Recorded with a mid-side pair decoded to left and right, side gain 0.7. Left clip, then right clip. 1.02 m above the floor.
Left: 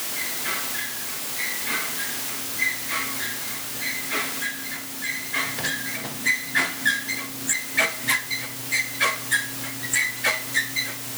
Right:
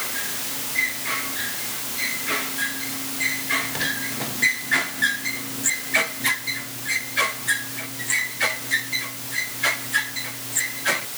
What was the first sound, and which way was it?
Only background noise.